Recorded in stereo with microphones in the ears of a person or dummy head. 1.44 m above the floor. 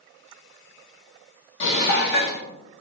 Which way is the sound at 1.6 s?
60° left (ahead or behind).